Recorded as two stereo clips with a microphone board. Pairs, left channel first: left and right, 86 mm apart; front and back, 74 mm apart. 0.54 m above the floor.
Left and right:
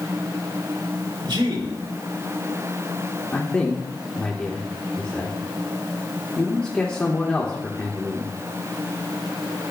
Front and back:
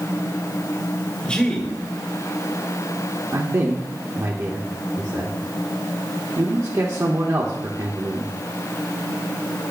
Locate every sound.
1.2 s a man speaking: 75° right, 2 m
3.3 s a man speaking: 160° left, 1.2 m